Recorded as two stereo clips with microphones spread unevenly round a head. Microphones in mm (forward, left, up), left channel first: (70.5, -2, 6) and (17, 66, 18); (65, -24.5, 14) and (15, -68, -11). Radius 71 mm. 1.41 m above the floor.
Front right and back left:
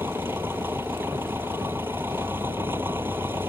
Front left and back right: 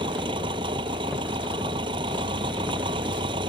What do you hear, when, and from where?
0.0 s an engine running: 155° right